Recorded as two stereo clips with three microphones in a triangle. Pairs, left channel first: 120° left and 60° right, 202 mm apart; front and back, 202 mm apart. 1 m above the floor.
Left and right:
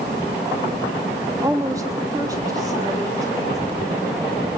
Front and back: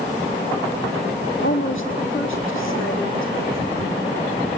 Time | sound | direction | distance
1.4 | a woman speaking | 15° left | 1.3 m